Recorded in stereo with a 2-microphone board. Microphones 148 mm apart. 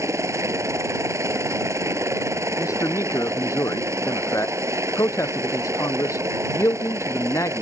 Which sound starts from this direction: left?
A man speaking, at 2.6 s.